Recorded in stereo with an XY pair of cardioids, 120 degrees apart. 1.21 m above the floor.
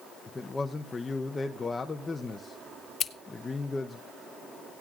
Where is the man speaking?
20° left, 0.8 m.